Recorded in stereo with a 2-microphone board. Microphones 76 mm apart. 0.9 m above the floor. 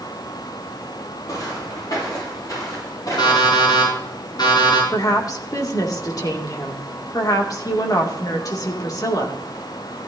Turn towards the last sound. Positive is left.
turn(degrees=50)  # may be behind; listen again after turning